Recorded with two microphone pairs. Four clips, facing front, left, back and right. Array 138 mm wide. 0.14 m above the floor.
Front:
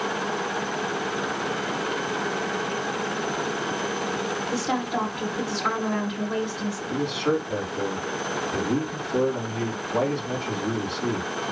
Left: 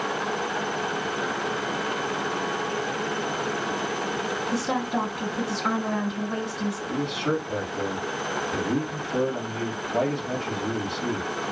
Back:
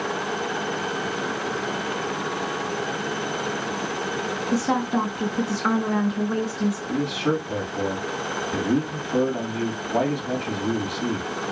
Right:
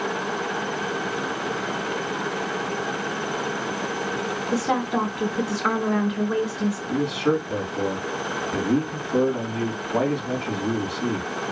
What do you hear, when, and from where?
4.5 s a woman speaking: 125° right, 1.8 m
6.9 s a man speaking: 165° right, 4 m